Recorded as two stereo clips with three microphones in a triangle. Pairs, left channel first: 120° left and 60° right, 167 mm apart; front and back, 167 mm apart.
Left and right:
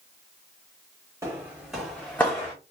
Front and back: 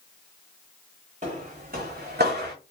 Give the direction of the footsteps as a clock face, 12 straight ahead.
4 o'clock.